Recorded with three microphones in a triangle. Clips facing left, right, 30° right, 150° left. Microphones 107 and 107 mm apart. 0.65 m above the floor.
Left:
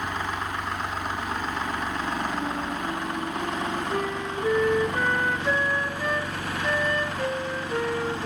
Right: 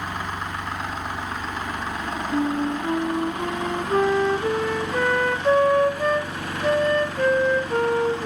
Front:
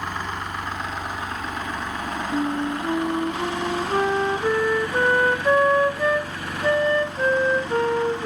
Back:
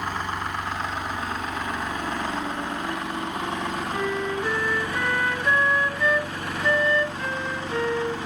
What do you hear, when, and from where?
2.3 s a flute: 80° right, 0.9 m